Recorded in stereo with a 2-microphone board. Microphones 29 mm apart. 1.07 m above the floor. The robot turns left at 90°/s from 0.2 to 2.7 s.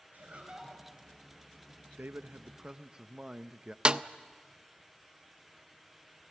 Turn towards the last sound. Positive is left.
turn(degrees=-35)  # may be behind; listen again after turning